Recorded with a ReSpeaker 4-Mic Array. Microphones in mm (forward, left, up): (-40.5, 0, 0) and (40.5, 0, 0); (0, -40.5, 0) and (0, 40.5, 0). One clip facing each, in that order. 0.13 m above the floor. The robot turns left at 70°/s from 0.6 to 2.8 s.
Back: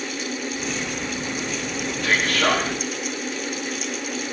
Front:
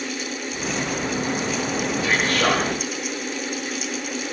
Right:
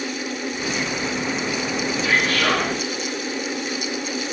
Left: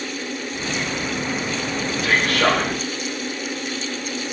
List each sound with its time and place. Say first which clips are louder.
2.0 s a man speaking: back 1 dB, left 3 dB; 75° left, 3.5 m; by 2.6 s 30° left, 3.5 m